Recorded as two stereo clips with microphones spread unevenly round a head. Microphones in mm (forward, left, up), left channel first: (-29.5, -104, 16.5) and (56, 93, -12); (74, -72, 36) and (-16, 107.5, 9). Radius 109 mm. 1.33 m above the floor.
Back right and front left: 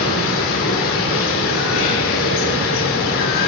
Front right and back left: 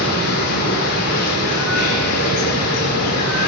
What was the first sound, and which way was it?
Running water, 85° right.